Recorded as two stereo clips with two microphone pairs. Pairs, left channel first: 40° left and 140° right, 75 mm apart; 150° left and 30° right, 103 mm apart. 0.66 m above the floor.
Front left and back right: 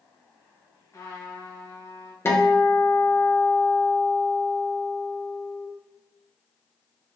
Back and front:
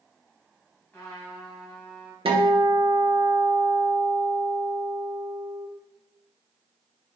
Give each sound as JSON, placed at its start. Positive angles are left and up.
{"t": 0.9, "sound": "a trumpet", "azimuth_deg": 75, "distance_m": 3.0}
{"t": 2.2, "sound": "a guitar", "azimuth_deg": -10, "distance_m": 1.4}